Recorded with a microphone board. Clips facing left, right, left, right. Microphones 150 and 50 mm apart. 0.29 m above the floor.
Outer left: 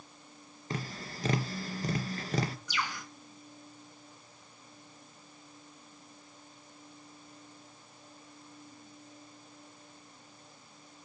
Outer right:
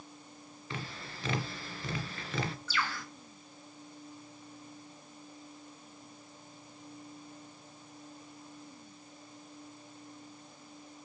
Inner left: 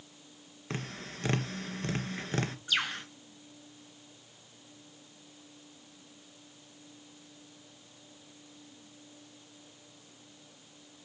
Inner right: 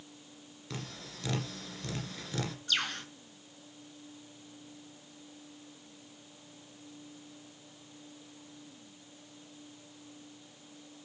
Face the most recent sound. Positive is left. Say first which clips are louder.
# outer right 1 dB, inner left 1 dB
turn(degrees=15)  # may be behind; listen again after turning